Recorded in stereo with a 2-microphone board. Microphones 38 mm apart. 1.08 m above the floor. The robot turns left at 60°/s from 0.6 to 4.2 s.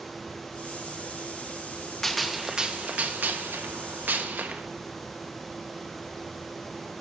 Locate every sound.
2.0 s a gunshot: 10° left, 0.7 m; by 4.7 s 120° right, 0.7 m